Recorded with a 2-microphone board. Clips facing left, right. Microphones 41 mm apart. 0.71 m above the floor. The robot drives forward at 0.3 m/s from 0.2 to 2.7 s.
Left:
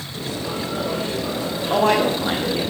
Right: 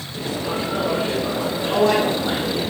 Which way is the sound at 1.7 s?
50° left (ahead or behind).